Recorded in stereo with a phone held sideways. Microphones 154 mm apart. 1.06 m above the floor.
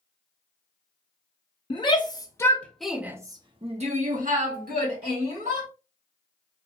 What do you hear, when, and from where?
1.7 s a shout: 35° left (ahead or behind), 1.0 m; by 5.7 s 80° right, 1.5 m